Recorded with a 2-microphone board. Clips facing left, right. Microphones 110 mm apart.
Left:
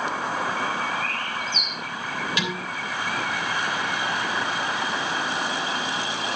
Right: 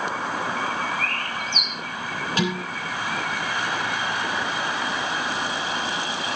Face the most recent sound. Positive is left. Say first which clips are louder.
# right 4 dB
turn(degrees=-40)  # may be behind; listen again after turning